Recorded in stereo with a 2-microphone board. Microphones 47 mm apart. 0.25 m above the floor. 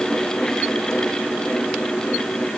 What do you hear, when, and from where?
Only background noise.